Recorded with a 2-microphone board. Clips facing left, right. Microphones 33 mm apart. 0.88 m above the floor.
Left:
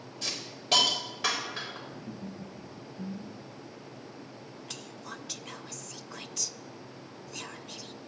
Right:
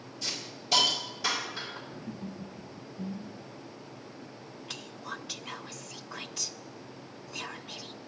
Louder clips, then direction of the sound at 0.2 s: Even; 45° left (ahead or behind).